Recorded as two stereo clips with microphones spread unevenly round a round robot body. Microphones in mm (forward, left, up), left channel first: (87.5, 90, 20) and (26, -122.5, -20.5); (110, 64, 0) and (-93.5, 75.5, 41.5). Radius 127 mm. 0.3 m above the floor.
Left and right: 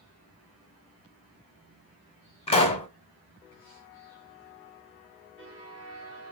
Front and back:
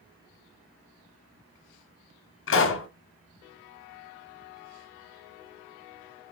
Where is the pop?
10° left, 0.9 m.